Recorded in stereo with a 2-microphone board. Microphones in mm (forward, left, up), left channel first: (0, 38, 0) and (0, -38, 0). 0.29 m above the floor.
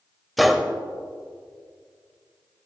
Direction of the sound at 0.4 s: Centre (ahead or behind).